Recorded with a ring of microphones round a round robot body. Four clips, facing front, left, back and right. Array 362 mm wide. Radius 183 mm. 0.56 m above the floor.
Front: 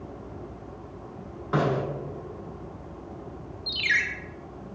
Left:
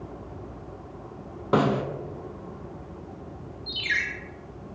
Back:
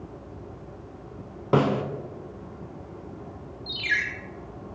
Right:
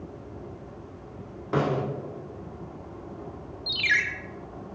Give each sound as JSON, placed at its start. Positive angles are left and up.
{"t": 1.5, "sound": "a snare drum", "azimuth_deg": 145, "distance_m": 0.7}
{"t": 3.7, "sound": "a ringtone", "azimuth_deg": -60, "distance_m": 1.2}